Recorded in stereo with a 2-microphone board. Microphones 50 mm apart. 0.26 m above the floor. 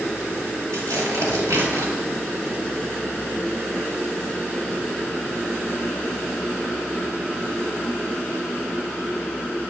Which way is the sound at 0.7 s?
75° right (ahead or behind).